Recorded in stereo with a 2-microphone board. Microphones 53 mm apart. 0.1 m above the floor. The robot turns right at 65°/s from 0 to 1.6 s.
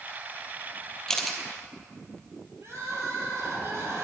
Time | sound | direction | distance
1.1 | a camera shutter | 10° left (ahead or behind) | 1.5 m
2.6 | crying | 55° right (ahead or behind) | 3 m